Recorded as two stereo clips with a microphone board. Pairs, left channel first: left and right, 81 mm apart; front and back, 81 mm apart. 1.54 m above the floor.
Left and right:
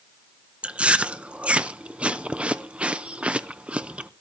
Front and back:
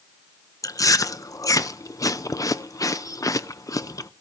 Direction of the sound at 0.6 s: 20° right.